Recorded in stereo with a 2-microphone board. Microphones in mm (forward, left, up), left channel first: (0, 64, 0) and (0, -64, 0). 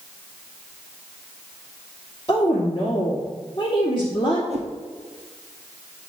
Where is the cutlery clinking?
No cutlery clinking in this recording.